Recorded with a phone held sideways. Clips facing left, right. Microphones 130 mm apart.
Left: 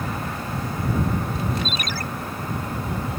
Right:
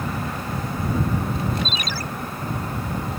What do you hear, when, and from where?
1.6 s a ringtone: 55° left (ahead or behind)